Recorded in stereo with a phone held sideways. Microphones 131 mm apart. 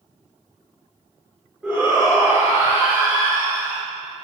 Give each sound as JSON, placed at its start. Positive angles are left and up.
{"t": 1.6, "sound": "a shout", "side_deg": -5, "distance_m": 3.5}